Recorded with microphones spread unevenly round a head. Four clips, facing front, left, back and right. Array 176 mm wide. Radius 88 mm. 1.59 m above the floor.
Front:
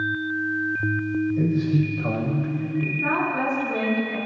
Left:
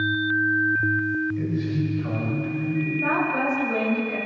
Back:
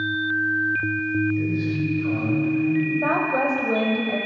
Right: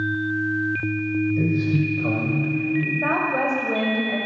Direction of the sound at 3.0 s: 150° right.